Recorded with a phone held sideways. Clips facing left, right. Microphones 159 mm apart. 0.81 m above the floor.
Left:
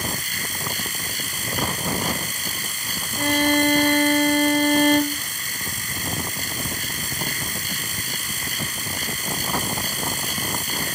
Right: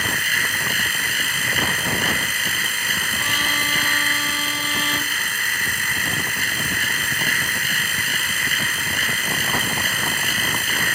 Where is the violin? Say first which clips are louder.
Left 14 dB; 50° left (ahead or behind).